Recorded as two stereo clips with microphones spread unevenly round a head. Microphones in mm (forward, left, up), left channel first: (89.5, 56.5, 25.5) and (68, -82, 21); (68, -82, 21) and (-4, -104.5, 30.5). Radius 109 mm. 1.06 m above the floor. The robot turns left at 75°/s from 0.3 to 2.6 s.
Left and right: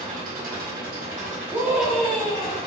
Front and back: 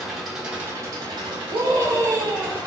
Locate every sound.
0.0 s an engine running: 75° right, 2 m; by 2.7 s 115° left, 2 m
1.5 s a scream: 155° right, 0.5 m; by 2.6 s 125° left, 0.5 m